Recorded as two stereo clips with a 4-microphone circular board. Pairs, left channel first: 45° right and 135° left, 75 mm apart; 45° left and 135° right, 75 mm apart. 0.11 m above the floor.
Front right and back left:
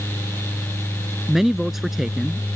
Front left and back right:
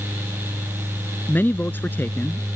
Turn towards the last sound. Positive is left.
turn(degrees=55)